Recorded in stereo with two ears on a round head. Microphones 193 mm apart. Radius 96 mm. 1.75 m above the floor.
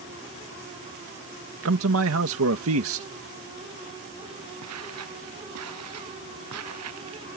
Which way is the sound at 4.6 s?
85° right.